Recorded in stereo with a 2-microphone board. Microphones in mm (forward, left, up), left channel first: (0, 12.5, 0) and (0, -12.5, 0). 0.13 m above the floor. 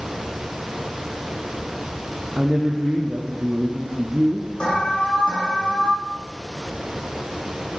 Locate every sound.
2.4 s a woman speaking: 15° right (ahead or behind), 3.5 m
4.6 s an alarm: 35° left (ahead or behind), 8.5 m